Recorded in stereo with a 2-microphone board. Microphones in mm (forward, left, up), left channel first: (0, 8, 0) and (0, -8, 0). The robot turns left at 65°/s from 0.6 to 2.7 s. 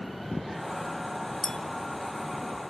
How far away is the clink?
About 0.8 m.